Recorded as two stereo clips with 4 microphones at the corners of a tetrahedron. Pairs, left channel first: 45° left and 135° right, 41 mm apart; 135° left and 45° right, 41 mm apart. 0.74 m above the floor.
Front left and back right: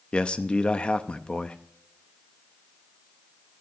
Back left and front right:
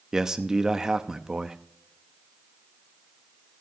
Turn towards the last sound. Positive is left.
turn(degrees=15)